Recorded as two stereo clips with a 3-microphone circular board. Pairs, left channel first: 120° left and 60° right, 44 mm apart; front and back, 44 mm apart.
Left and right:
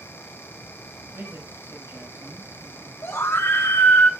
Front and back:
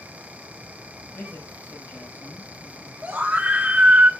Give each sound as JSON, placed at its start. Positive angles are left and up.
{"t": 1.1, "sound": "a man speaking", "azimuth_deg": -25, "distance_m": 7.0}
{"t": 3.0, "sound": "a scream", "azimuth_deg": 120, "distance_m": 3.5}